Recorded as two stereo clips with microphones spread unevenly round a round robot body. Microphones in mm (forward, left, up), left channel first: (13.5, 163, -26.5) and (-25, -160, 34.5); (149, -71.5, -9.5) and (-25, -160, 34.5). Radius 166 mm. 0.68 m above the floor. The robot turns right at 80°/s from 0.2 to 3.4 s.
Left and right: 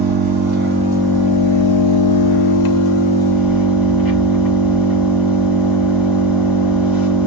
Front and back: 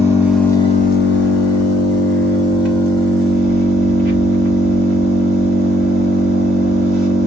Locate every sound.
0.0 s an engine running: 75° right, 1.5 m; by 7.3 s straight behind, 1.5 m